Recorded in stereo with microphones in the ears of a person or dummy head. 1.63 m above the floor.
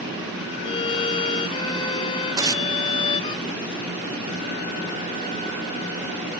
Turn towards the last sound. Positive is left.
turn(degrees=-25)  # may be behind; listen again after turning